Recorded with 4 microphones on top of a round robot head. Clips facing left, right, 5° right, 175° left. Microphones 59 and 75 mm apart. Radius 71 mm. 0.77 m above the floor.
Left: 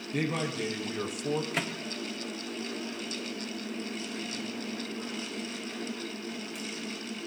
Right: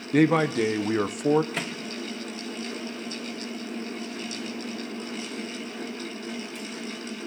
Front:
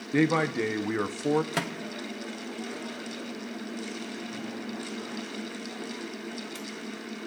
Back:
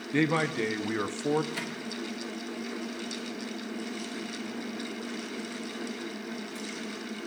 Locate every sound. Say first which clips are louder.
0.1 s a man speaking: right 11 dB, front 2 dB; 80° right, 1.1 m
1.5 s a microwave: right 1 dB, front 3 dB; 5° left, 1.3 m